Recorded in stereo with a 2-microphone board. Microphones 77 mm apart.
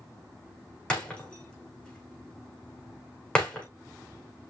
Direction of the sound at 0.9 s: 10° left (ahead or behind).